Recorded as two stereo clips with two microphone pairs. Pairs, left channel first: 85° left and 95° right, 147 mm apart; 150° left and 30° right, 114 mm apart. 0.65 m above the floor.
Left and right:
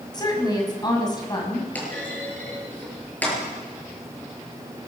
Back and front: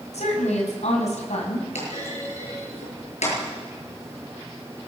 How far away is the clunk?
About 7 m.